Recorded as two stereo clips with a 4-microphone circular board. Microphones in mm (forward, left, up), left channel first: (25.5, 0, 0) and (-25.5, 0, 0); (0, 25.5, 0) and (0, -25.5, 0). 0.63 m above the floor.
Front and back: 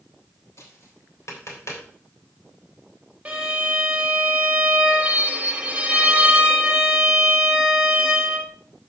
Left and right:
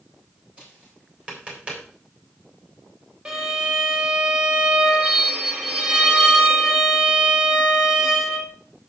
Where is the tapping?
25° right, 3 m.